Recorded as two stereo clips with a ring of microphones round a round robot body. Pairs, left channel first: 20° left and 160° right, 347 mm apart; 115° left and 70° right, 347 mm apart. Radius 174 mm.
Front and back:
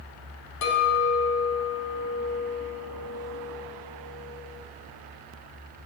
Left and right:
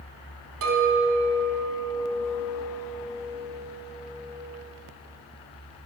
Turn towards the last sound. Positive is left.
turn(degrees=-15)